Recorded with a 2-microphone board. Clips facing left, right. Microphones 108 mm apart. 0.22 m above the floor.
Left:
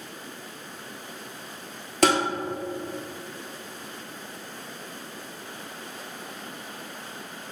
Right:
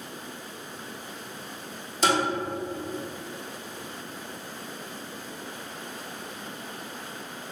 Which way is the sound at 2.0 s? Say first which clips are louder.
Left 3 dB; 70° left (ahead or behind).